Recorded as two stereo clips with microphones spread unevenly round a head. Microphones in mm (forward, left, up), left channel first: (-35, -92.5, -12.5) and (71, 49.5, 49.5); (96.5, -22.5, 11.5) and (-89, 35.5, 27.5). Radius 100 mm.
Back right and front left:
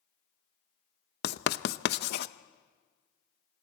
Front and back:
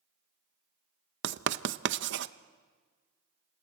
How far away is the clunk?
I don't hear a clunk.